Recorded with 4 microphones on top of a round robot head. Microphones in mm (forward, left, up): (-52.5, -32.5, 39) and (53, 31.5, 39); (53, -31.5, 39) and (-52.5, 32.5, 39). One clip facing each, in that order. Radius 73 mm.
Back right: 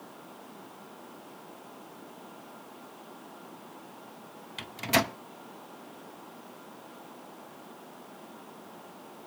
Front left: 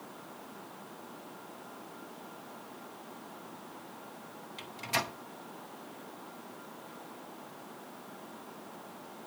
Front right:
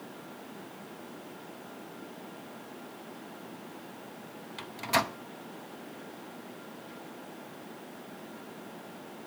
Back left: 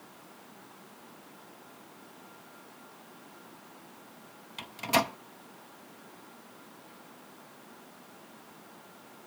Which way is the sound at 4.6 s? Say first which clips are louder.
Back right 8 dB, back left 2 dB; 135° right.